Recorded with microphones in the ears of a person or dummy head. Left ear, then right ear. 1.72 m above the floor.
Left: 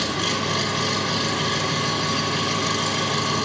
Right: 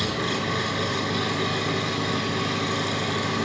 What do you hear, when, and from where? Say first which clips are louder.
0.0 s an engine running: left 3 dB; 80° left, 7.5 m